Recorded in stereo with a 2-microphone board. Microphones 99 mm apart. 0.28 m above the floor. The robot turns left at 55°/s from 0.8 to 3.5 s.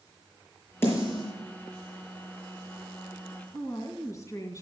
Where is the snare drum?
25° left (ahead or behind), 6.5 m; by 1.3 s 50° left (ahead or behind), 6.5 m.